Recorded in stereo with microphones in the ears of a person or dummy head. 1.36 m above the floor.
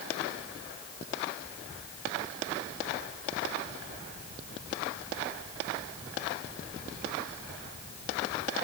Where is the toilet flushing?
No toilet flushing in this recording.